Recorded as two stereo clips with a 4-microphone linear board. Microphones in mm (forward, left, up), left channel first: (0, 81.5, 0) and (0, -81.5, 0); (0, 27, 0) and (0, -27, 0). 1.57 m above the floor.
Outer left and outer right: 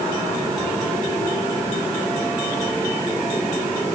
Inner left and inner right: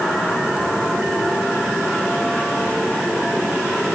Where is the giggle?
I don't hear a giggle.